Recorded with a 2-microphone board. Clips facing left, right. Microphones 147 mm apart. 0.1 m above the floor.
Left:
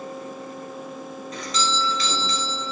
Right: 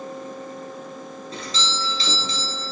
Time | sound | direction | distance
1.3 | a doorbell | 35° right (ahead or behind) | 1.8 m